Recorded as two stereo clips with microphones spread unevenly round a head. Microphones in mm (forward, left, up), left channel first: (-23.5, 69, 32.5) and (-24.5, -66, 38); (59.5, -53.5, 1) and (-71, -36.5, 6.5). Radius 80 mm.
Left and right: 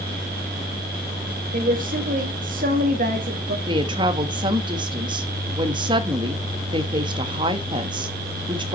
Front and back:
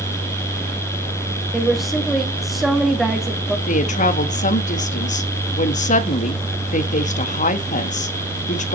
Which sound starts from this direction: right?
A woman speaking, at 1.5 s.